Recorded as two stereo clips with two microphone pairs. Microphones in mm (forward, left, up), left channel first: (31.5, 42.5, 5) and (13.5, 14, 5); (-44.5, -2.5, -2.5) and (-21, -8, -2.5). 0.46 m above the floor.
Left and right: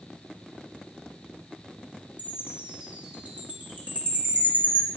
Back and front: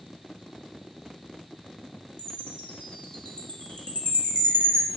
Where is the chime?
160° right, 1.9 m.